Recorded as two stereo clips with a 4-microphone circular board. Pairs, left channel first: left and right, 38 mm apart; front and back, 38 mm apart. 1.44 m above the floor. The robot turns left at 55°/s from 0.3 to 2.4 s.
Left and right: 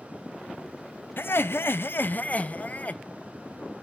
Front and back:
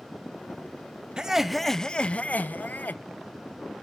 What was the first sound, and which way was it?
Laughter, 110° left.